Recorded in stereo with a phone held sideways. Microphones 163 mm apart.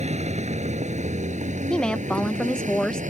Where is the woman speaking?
5° left (ahead or behind).